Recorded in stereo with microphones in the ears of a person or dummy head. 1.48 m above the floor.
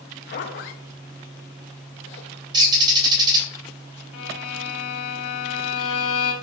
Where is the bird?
25° right (ahead or behind), 2.5 m.